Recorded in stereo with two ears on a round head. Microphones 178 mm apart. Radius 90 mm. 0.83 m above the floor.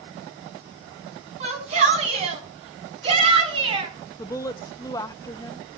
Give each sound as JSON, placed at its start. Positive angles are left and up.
{"t": 1.4, "sound": "a shout", "side_deg": -35, "distance_m": 7.5}
{"t": 4.2, "sound": "a woman speaking", "side_deg": 15, "distance_m": 0.7}